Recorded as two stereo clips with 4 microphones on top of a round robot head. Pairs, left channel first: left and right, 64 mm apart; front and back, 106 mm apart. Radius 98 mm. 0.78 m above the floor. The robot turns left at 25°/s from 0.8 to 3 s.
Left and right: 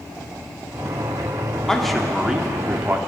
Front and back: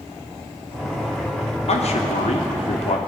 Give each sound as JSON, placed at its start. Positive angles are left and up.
{"t": 1.7, "sound": "a man speaking", "azimuth_deg": 5, "distance_m": 2.0}